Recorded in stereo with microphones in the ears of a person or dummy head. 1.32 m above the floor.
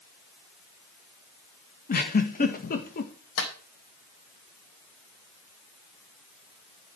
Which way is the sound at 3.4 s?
75° left (ahead or behind).